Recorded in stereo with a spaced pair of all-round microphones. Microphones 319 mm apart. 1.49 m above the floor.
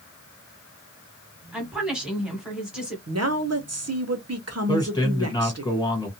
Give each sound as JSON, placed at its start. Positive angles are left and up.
{"t": 1.5, "sound": "a woman speaking", "side_deg": -5, "distance_m": 1.4}
{"t": 3.1, "sound": "a woman speaking", "side_deg": -50, "distance_m": 0.7}
{"t": 4.7, "sound": "a man speaking", "side_deg": 10, "distance_m": 1.5}